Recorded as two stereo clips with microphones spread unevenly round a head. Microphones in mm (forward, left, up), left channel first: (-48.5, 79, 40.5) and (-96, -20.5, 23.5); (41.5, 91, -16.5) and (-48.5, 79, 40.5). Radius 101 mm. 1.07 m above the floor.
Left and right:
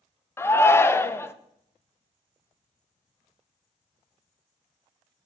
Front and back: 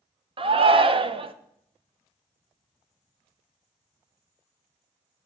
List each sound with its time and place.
0.4 s a shout: 135° left, 0.7 m